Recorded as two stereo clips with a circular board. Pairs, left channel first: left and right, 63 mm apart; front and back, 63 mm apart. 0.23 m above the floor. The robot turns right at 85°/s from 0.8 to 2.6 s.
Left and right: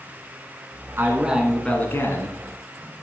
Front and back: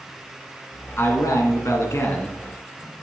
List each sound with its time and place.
1.0 s a man speaking: 45° right, 2.5 m; by 2.4 s 75° left, 2.5 m